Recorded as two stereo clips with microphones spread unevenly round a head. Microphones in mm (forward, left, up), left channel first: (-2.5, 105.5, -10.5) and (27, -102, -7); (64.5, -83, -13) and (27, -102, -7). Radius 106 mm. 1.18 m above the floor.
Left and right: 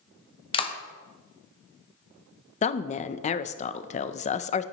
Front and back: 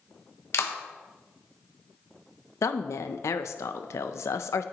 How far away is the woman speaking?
About 0.5 m.